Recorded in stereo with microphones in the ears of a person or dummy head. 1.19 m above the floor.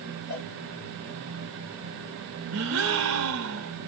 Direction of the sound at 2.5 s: 65° right (ahead or behind).